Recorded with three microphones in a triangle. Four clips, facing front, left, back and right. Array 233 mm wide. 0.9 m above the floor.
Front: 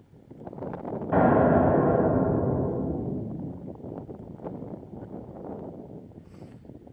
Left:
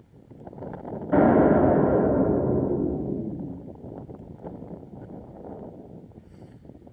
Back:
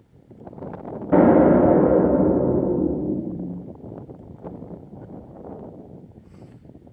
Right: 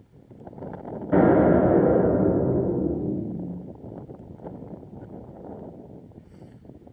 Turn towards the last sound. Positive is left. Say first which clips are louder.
# even, back 6 dB
turn(degrees=-175)